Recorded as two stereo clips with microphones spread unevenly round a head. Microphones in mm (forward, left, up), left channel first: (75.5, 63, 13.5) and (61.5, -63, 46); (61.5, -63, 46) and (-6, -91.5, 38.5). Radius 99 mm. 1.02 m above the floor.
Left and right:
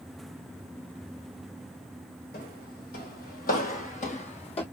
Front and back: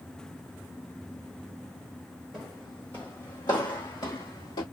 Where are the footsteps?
115° left, 2 m; by 4.6 s 40° left, 1.8 m.